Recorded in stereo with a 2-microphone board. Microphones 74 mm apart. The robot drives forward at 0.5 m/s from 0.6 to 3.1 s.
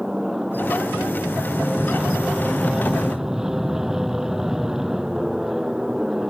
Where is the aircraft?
5° right (ahead or behind).